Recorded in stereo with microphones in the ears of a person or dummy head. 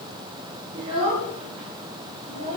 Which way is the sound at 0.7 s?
35° right (ahead or behind).